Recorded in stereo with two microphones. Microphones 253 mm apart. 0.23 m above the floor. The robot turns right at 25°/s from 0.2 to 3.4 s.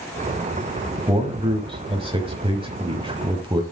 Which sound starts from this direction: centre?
A man speaking, at 1.1 s.